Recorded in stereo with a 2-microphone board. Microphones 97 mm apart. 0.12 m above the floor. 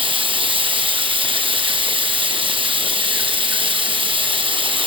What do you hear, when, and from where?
0.0 s running water: 70° right (ahead or behind), 4 m